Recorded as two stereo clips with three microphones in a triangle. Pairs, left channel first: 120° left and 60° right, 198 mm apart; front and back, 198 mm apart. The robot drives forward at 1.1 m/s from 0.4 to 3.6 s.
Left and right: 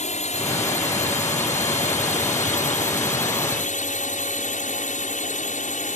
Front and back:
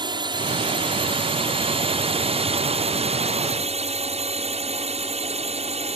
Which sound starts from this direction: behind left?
A drone, at 0.0 s.